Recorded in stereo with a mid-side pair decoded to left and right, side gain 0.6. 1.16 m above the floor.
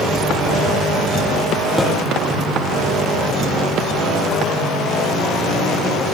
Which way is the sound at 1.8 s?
5° right.